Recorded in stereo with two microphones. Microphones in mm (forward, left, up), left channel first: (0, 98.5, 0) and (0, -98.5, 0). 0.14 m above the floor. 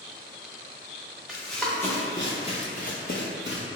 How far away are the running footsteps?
About 1.1 m.